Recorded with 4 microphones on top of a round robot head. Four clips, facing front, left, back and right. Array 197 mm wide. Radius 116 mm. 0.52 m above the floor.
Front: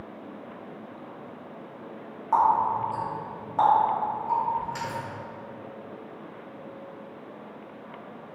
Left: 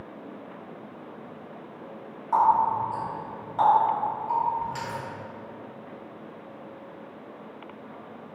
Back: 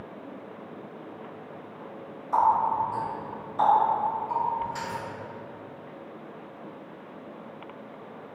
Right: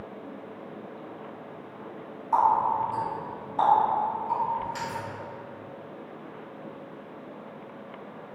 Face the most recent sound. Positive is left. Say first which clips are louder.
# left 1 dB, front 1 dB
turn(degrees=20)